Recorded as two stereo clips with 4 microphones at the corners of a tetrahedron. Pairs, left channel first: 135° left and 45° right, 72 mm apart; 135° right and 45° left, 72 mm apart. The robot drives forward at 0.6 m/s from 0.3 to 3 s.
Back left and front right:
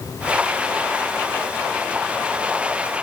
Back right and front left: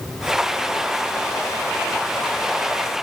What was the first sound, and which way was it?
Only background noise.